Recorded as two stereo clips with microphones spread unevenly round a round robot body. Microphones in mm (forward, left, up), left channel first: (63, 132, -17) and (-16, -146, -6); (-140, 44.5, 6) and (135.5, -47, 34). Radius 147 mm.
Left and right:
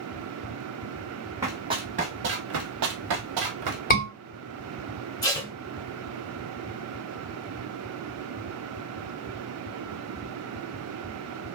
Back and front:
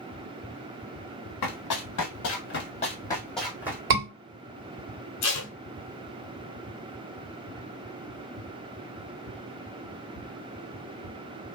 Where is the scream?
20° left, 2 m.